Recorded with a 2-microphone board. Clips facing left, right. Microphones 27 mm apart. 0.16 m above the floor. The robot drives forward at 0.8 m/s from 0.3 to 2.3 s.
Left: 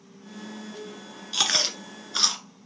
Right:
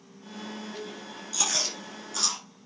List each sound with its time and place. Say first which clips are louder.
1.3 s chewing: left 6 dB; 55° left (ahead or behind), 1.6 m; by 2.4 s 50° left (ahead or behind), 1.7 m